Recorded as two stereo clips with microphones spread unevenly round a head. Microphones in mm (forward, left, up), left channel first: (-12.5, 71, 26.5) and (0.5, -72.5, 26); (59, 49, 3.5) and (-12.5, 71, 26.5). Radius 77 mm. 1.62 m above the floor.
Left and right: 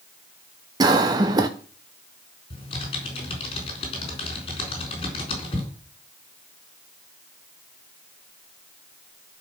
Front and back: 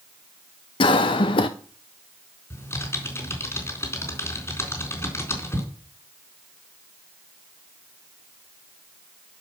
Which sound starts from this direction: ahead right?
A cough, at 0.8 s.